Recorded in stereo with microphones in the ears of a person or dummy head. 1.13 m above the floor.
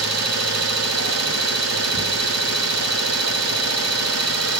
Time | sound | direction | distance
0.0 | an engine running | 85° right | 0.7 m